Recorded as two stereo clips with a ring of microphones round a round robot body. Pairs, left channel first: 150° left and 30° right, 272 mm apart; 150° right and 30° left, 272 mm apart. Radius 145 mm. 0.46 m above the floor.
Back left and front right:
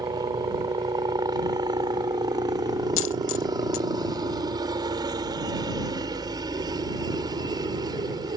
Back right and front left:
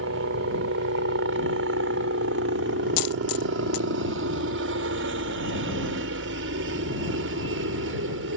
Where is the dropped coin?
165° right.